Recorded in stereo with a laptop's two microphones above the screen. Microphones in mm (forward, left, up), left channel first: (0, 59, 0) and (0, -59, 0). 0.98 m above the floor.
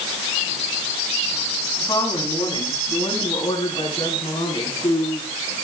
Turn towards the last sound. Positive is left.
turn(degrees=55)  # may be behind; listen again after turning